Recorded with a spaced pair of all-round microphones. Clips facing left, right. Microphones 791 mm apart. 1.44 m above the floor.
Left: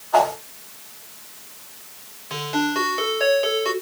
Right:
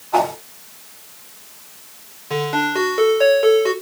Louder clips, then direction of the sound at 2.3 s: Right 3 dB; 75° right (ahead or behind).